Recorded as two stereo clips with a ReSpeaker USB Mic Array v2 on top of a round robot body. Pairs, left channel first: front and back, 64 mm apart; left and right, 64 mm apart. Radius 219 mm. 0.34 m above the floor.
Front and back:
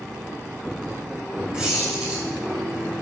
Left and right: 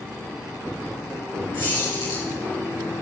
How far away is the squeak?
About 3.5 m.